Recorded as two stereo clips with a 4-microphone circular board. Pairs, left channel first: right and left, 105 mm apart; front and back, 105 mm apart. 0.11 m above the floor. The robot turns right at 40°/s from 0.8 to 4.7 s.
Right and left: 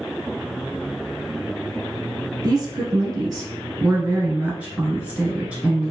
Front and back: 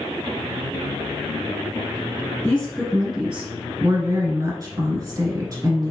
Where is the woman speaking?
70° left, 1.3 m; by 5.9 s 160° left, 1.3 m.